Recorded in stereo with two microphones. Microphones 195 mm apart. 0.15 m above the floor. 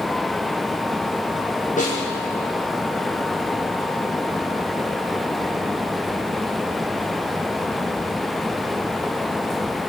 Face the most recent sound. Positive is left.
turn(degrees=40)  # may be behind; listen again after turning